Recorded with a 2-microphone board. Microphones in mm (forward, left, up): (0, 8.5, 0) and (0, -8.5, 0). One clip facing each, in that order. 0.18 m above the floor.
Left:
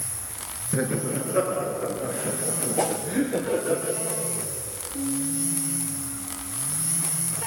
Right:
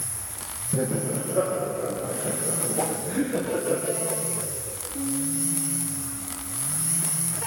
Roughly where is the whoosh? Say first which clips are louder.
Left 4 dB; left.